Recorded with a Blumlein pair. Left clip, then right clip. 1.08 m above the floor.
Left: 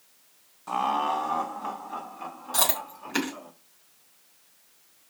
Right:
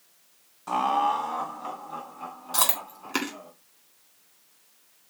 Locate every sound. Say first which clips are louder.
0.7 s laughter: right 2 dB; 10° right, 0.6 m; by 3.5 s 15° left, 3.5 m
2.5 s chewing: even; 10° right, 3.5 m